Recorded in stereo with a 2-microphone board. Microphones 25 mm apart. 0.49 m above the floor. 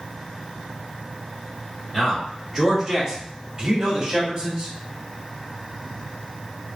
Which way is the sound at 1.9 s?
Centre (ahead or behind).